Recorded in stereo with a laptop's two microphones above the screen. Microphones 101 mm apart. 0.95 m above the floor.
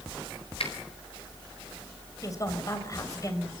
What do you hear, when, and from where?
0.6 s a finger snap: 75° left (ahead or behind), 4 m
2.2 s a woman speaking: 35° left (ahead or behind), 4 m